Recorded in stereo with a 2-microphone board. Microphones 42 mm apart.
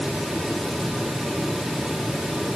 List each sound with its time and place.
Only background noise.